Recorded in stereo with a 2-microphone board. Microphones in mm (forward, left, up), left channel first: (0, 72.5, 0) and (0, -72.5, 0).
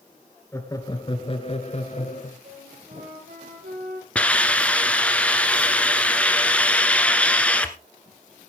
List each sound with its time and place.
0.5 s laughter: 20° left (ahead or behind), 2 m; by 2.3 s 55° left (ahead or behind), 3 m
2.4 s a flute: 85° right, 9.5 m
4.2 s a hiss: 10° left (ahead or behind), 1.4 m